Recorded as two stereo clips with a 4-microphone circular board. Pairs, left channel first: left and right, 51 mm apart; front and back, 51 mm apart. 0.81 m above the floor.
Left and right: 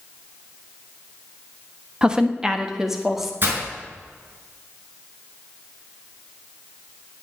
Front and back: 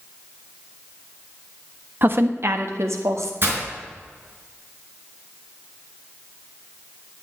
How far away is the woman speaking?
About 1.0 m.